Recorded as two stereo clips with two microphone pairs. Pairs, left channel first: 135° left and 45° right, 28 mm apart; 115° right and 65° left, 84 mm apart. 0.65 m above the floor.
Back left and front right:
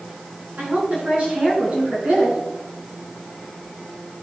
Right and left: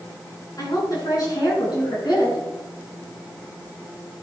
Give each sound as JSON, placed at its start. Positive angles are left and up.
{"t": 0.6, "sound": "a woman speaking", "azimuth_deg": -70, "distance_m": 7.5}